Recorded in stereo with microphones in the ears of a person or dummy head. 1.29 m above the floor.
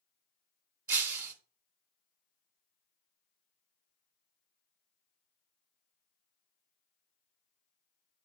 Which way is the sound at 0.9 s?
10° right (ahead or behind).